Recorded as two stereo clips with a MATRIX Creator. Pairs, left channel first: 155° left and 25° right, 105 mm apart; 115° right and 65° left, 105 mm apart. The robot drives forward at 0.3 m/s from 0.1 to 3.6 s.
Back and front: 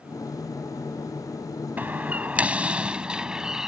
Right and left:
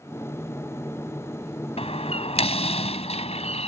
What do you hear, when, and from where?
1.8 s a door slam: 95° right; by 3.7 s 105° right